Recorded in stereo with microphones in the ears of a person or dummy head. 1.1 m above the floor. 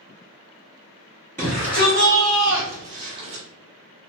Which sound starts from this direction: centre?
A shout, at 1.4 s.